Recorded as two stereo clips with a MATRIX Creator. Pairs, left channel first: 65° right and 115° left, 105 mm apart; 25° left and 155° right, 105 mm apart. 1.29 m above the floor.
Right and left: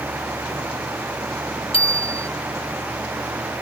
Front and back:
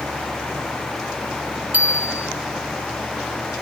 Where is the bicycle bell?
85° right.